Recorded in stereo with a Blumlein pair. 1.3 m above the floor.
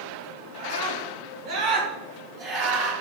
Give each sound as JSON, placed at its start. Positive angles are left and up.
{"t": 0.6, "sound": "a scream", "azimuth_deg": -50, "distance_m": 5.0}